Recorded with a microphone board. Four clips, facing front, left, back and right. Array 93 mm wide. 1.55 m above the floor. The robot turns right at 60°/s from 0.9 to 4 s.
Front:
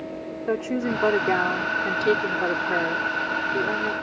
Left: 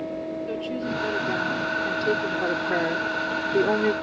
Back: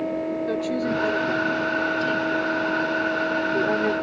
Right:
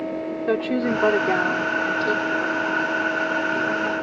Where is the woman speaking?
65° right; by 3.9 s 120° left.